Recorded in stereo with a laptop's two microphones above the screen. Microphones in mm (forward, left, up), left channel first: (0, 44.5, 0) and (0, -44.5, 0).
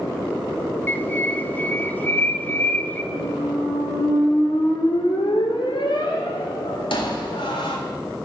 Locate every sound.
0.9 s a bird: 20° left (ahead or behind), 1.0 m
3.1 s a squeak: 70° left (ahead or behind), 3 m